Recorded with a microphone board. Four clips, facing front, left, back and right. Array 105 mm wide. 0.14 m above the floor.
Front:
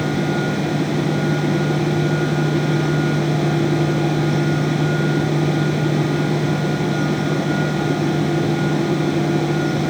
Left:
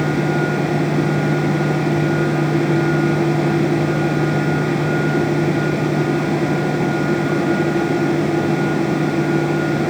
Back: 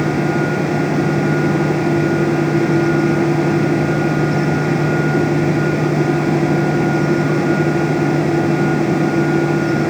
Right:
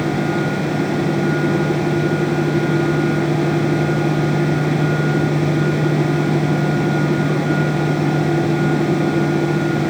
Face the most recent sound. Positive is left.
No sound to turn to.